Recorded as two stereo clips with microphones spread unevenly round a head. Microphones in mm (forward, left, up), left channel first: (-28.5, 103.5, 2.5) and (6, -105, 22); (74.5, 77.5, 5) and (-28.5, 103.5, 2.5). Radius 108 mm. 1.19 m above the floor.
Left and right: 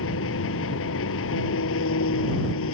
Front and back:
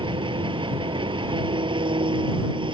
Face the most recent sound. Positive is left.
turn(degrees=125)